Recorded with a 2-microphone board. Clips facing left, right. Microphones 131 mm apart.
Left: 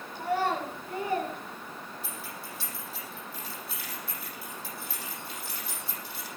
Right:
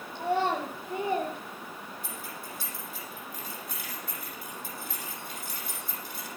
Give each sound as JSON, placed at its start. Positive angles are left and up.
{"t": 0.1, "sound": "a child speaking", "side_deg": -25, "distance_m": 4.5}
{"t": 2.0, "sound": "keys jangling", "side_deg": -50, "distance_m": 7.0}